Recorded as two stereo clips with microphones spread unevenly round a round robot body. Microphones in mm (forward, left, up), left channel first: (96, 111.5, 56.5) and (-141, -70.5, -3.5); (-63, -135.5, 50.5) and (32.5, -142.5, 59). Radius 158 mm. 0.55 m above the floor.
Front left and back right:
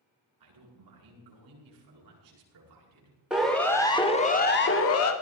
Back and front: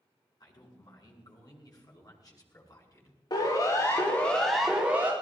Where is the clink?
No clink in this recording.